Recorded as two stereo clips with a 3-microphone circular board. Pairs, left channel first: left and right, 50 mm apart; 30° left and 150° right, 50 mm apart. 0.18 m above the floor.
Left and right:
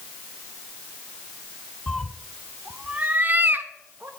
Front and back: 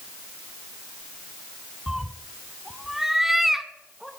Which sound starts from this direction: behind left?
A cat meowing, at 1.9 s.